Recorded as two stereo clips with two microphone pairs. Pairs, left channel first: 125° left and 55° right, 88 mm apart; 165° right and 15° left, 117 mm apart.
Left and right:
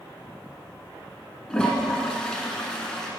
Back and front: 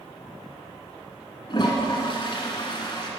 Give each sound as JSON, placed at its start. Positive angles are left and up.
{"t": 1.5, "sound": "a toilet flushing", "azimuth_deg": -160, "distance_m": 1.4}